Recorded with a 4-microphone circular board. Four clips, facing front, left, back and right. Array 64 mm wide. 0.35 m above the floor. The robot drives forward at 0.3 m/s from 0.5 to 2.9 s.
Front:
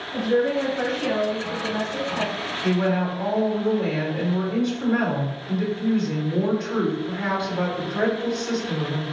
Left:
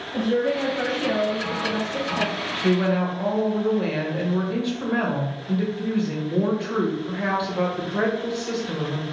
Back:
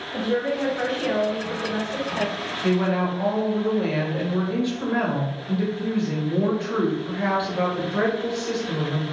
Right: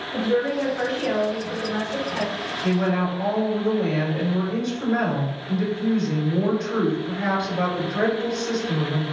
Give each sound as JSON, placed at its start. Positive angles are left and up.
{"t": 0.1, "sound": "a woman speaking", "azimuth_deg": -115, "distance_m": 1.1}
{"t": 2.6, "sound": "a woman speaking", "azimuth_deg": 115, "distance_m": 1.0}